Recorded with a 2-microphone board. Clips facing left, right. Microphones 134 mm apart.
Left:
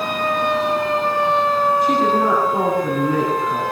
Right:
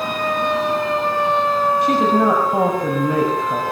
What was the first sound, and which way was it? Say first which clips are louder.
A woman speaking: right 1 dB; 75° right (ahead or behind).